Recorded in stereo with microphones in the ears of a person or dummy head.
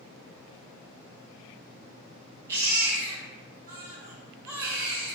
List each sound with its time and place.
2.5 s a baby crying: 15° right (ahead or behind), 0.9 m